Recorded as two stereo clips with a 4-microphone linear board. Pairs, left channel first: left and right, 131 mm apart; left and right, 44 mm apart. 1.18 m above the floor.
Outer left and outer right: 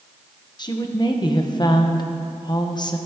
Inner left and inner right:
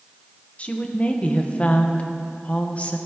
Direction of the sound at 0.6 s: 35° left (ahead or behind).